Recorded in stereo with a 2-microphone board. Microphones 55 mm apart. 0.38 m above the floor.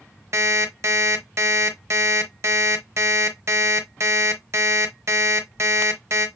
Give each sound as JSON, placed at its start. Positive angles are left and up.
{"t": 0.3, "sound": "an alarm clock", "side_deg": -65, "distance_m": 0.8}